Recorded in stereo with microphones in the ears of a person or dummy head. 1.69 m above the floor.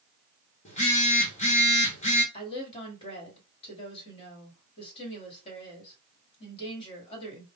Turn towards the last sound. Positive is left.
turn(degrees=35)  # may be behind; listen again after turning